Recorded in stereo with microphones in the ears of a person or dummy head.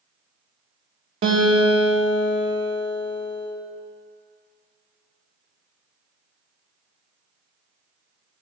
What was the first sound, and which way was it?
A guitar, 30° right (ahead or behind).